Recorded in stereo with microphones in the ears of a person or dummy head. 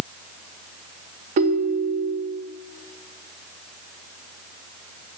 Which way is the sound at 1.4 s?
45° right (ahead or behind).